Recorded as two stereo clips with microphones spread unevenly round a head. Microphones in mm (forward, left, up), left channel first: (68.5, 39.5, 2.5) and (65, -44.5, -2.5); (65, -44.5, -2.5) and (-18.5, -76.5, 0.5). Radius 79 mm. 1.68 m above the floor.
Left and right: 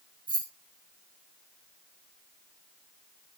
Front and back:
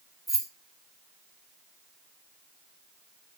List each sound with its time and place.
0.3 s keys jangling: 70° right, 4.5 m